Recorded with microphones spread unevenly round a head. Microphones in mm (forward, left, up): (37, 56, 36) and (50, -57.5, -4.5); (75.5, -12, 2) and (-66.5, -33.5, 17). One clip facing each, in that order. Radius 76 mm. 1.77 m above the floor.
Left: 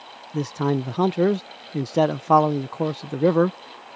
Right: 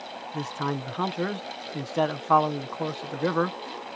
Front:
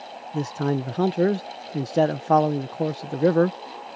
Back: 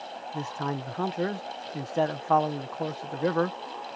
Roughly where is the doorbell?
I don't hear a doorbell.